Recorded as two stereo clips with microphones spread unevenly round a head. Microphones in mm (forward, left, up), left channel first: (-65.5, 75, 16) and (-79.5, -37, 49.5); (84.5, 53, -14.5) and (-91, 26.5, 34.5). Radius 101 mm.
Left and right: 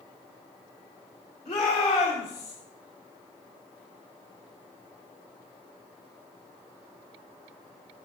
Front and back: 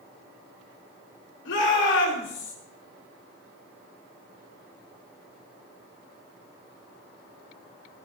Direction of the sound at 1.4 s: 15° left.